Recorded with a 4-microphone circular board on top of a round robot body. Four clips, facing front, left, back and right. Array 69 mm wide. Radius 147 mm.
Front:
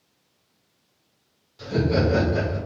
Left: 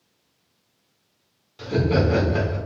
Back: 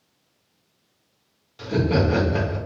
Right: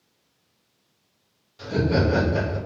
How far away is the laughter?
About 1.4 m.